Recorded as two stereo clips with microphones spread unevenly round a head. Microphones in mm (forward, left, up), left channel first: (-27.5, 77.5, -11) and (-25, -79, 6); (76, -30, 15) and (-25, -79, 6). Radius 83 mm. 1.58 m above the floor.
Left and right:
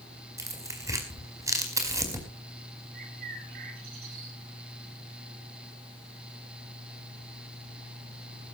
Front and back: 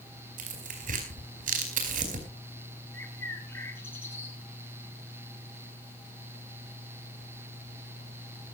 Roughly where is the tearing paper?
Behind.